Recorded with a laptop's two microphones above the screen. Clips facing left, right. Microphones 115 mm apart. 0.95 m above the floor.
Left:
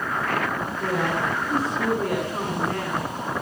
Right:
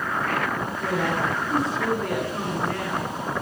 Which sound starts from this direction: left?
A woman speaking, at 0.8 s.